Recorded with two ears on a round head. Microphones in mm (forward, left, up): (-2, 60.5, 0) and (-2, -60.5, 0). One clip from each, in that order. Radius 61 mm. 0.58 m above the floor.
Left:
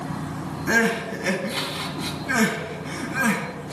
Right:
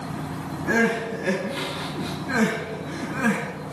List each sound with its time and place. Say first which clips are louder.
0.7 s crying: left 1 dB; 80° left, 2.5 m